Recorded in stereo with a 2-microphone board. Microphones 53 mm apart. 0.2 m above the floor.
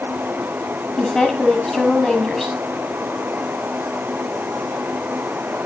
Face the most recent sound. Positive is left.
turn(degrees=10)  # may be behind; listen again after turning